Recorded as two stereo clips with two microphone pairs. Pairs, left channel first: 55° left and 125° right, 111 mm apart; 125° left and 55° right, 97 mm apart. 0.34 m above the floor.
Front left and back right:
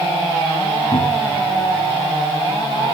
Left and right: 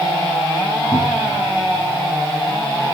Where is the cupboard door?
70° left, 6.5 m.